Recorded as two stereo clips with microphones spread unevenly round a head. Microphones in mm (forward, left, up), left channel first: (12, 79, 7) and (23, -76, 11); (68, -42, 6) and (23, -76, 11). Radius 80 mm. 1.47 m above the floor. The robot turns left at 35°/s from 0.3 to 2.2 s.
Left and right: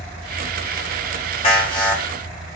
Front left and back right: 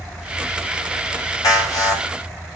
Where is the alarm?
40° left, 5.5 m; by 2.5 s 10° left, 5.5 m.